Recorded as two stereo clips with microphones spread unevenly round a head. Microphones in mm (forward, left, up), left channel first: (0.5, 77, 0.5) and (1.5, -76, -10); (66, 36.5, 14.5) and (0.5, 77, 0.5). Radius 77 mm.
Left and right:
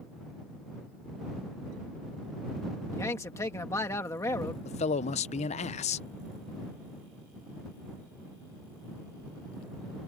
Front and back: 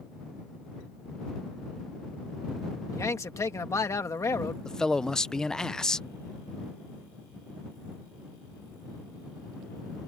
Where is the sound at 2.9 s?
20° left.